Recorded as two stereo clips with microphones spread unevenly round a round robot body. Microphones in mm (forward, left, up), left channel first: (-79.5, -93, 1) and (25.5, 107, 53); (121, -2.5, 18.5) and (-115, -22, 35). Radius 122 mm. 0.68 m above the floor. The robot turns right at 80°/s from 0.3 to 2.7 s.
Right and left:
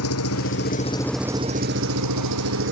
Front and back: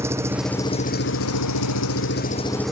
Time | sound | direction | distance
0.0 | an engine running | 95° right | ?